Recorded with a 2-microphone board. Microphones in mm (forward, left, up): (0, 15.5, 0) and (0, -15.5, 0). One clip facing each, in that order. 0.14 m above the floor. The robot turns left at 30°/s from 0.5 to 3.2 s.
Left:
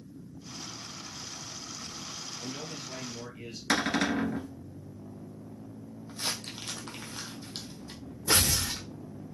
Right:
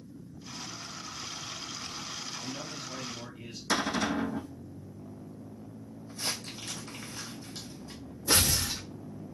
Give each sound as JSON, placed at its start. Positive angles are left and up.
{"t": 2.4, "sound": "a man speaking", "side_deg": 20, "distance_m": 2.5}
{"t": 3.7, "sound": "a cupboard door", "side_deg": 55, "distance_m": 1.1}
{"t": 6.1, "sound": "crumpling", "side_deg": 60, "distance_m": 0.9}
{"t": 8.3, "sound": "tearing paper", "side_deg": 65, "distance_m": 2.5}